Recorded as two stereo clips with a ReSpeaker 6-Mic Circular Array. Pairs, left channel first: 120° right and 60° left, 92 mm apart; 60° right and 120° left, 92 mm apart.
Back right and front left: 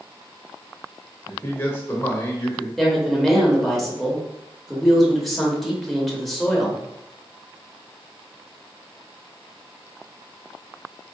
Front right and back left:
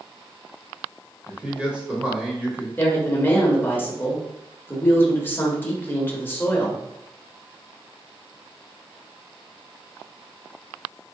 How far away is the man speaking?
About 1.0 m.